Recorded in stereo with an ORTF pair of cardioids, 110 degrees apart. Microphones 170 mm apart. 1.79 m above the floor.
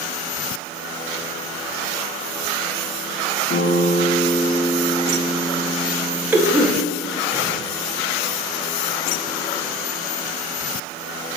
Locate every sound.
3.5 s a guitar: 35° left, 0.8 m
6.3 s a cough: 10° right, 0.6 m